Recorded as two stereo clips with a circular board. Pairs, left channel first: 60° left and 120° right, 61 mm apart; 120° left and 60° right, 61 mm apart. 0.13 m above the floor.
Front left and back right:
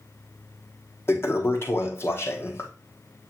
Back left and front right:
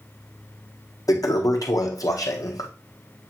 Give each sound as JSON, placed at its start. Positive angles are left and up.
{"t": 1.1, "sound": "a toilet flushing", "azimuth_deg": 110, "distance_m": 1.3}